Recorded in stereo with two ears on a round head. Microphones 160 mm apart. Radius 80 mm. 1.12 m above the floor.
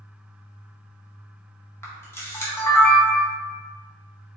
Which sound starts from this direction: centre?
A camera shutter, at 1.8 s.